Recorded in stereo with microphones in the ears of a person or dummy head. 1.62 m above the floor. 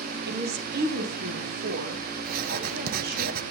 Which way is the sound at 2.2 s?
50° right (ahead or behind).